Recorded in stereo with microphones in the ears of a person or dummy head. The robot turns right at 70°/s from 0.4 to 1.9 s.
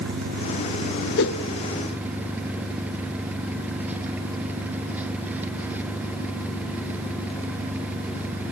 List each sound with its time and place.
0.0 s an engine running: 115° right, 1.2 m; by 8.5 s 10° right, 1.2 m
1.2 s a whoosh: 55° left (ahead or behind), 1.1 m; by 1.4 s 65° left (ahead or behind), 1.1 m